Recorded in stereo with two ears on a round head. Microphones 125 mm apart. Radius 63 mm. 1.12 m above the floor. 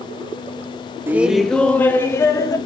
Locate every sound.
1.1 s laughter: 15° right (ahead or behind), 0.5 m; by 2.6 s 25° left (ahead or behind), 1.2 m